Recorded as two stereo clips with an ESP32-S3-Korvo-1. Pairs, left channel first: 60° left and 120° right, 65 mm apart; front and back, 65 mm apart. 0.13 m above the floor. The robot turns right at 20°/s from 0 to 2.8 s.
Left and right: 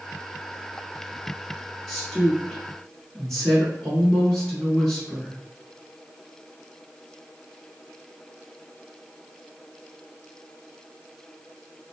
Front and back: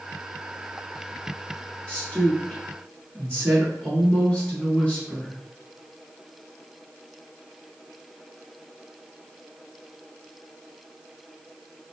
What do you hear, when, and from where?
1.9 s a woman speaking: 20° right, 1.4 m; by 5.3 s straight ahead, 1.4 m